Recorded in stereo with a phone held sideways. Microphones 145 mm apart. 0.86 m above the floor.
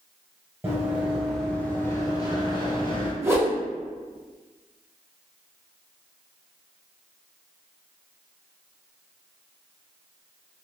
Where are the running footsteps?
15° right (ahead or behind), 1.0 m; by 3.1 s 40° left (ahead or behind), 1.2 m.